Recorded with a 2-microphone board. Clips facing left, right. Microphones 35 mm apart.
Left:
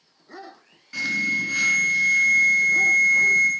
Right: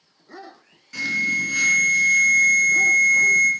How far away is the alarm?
About 1.8 m.